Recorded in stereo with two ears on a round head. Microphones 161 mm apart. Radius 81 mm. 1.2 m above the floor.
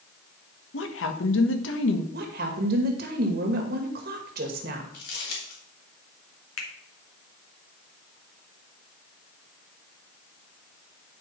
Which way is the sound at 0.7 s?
80° left.